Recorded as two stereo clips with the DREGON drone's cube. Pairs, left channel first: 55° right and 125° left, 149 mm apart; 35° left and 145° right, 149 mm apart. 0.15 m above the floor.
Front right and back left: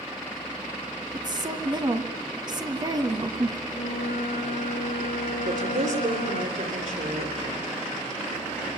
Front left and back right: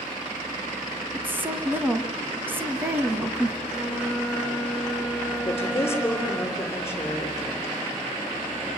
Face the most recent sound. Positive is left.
turn(degrees=105)